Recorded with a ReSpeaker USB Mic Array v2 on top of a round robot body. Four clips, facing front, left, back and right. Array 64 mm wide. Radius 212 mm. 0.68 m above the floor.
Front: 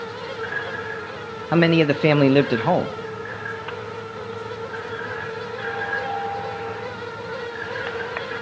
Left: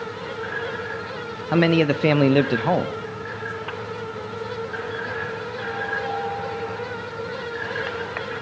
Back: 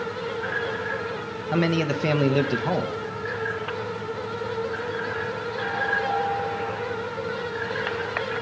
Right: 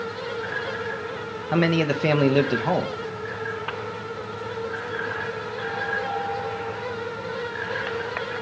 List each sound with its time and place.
1.5 s a man speaking: 20° left, 0.8 m